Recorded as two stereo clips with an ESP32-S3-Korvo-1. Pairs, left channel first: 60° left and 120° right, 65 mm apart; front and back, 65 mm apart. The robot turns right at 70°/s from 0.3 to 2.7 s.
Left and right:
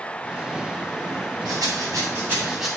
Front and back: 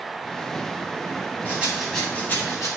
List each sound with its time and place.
1.4 s a rattle: 120° right, 2.5 m; by 2.7 s 35° right, 2.5 m